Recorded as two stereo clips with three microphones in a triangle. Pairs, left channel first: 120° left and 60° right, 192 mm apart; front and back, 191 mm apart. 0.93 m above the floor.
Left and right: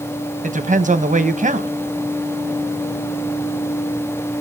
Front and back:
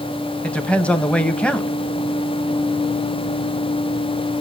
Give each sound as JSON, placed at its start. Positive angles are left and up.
{"t": 0.4, "sound": "a woman speaking", "azimuth_deg": -80, "distance_m": 0.9}